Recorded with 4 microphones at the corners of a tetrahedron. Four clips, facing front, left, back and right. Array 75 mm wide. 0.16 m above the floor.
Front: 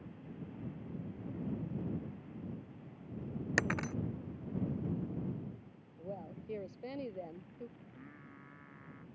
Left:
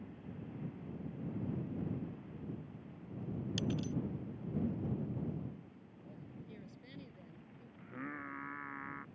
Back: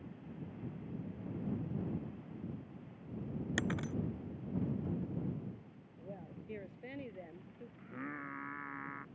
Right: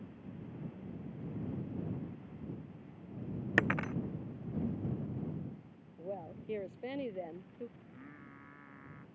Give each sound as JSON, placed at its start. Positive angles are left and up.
{"t": 3.6, "sound": "breaking glass", "azimuth_deg": -65}
{"t": 6.0, "sound": "a woman speaking", "azimuth_deg": -70}
{"t": 7.8, "sound": "singing", "azimuth_deg": 140}